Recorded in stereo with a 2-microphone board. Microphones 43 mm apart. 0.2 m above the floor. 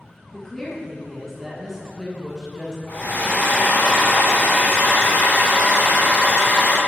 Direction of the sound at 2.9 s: 45° left (ahead or behind).